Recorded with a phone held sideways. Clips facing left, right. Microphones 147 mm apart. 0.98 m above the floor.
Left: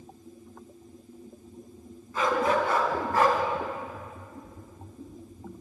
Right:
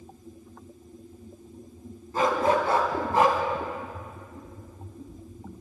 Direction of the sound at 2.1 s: 40° right (ahead or behind).